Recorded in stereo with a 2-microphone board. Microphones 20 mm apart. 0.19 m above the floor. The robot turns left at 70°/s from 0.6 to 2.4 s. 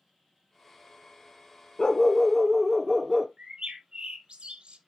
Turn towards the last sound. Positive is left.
turn(degrees=-55)  # may be behind; listen again after turning